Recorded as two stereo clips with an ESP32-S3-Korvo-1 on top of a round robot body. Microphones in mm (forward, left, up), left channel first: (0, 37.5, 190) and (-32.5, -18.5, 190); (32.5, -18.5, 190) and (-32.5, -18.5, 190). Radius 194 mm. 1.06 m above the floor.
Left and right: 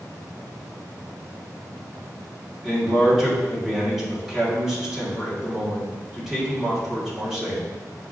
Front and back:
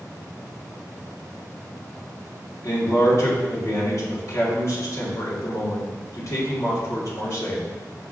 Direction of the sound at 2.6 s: 40° right.